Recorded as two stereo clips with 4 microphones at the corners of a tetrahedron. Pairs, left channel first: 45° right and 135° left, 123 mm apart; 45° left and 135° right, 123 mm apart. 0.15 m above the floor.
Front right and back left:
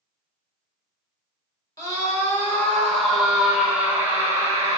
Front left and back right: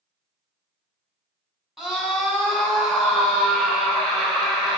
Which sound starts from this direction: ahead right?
A scream, at 1.8 s.